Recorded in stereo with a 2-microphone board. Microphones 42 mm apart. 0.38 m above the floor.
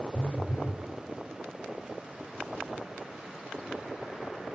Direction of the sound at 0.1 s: 70° left (ahead or behind).